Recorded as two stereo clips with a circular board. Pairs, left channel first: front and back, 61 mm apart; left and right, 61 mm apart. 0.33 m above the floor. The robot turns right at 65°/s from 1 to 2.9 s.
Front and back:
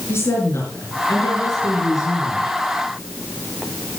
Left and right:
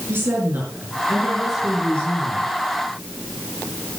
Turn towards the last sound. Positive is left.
turn(degrees=80)